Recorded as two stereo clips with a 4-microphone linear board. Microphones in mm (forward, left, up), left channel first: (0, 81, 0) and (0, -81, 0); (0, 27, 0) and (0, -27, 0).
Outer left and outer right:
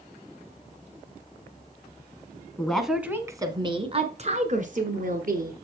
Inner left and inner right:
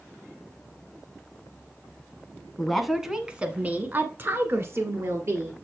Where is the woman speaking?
5° left (ahead or behind), 1.2 m; by 5.6 s 60° right (ahead or behind), 2.5 m.